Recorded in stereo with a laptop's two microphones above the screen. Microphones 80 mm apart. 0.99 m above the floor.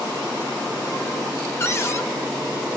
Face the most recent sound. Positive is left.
turn(degrees=35)  # may be behind; listen again after turning